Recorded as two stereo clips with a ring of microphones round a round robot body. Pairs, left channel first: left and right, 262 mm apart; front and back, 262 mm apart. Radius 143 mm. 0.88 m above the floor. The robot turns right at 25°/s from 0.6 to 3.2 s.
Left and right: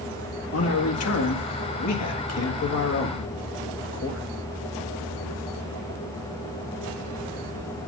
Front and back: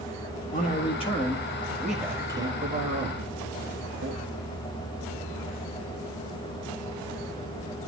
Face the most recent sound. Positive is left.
turn(degrees=125)